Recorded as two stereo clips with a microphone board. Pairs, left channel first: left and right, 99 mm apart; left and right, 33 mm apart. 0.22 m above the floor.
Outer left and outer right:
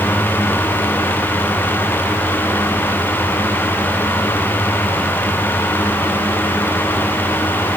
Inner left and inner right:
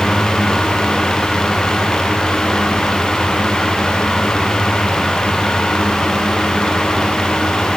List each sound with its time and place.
Only background noise.